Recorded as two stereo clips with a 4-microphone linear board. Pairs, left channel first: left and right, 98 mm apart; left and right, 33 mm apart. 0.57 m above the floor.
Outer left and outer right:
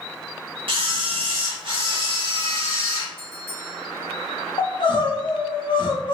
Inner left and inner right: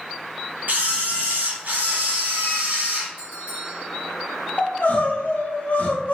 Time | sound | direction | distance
0.7 | a camera shutter | 60° right (ahead or behind) | 0.9 m
3.2 | a bell | 50° right (ahead or behind) | 1.3 m
4.6 | crying | 55° left (ahead or behind) | 0.7 m